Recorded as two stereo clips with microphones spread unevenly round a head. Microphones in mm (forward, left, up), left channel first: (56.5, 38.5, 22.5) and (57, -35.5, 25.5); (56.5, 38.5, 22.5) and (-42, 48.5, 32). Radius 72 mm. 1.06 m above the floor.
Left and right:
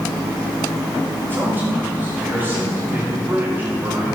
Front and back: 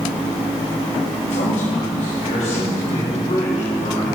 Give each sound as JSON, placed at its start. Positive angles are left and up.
{"t": 1.3, "sound": "a man speaking", "azimuth_deg": -25, "distance_m": 5.0}